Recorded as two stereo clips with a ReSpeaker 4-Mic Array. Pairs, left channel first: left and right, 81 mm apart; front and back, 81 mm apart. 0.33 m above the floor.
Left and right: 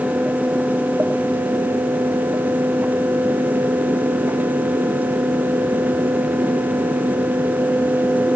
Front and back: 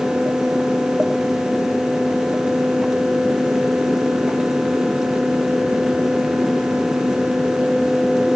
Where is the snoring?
I don't hear snoring.